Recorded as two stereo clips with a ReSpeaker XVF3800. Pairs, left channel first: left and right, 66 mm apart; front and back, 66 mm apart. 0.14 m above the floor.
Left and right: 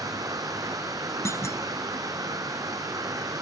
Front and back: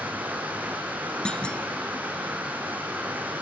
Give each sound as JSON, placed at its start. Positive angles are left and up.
{"t": 0.0, "sound": "running water", "azimuth_deg": -115, "distance_m": 4.0}
{"t": 1.2, "sound": "a clunk", "azimuth_deg": 70, "distance_m": 0.9}